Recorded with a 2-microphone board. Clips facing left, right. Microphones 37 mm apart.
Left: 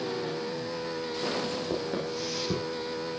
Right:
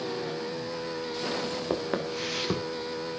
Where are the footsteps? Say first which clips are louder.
Right 1 dB; 45° right (ahead or behind), 2.0 m.